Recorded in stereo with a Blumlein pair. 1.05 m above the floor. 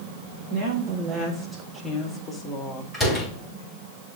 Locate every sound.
0.5 s a woman speaking: 35° right, 1.5 m; by 2.8 s 30° left, 1.6 m
2.9 s a door slam: 5° right, 3.5 m